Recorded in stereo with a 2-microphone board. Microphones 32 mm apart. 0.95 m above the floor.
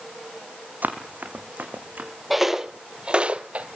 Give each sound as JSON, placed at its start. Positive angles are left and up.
{"t": 0.8, "sound": "running footsteps", "side_deg": -60, "distance_m": 3.0}
{"t": 2.3, "sound": "footsteps", "side_deg": -5, "distance_m": 1.2}